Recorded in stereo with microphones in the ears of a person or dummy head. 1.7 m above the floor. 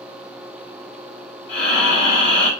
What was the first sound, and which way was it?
Breathing, 35° left (ahead or behind).